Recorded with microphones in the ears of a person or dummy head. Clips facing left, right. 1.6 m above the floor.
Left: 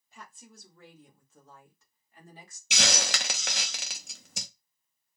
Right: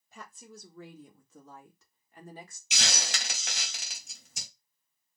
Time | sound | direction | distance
0.1 | a woman speaking | 70° right (ahead or behind) | 1.1 m
2.7 | a hiss | 55° left (ahead or behind) | 0.6 m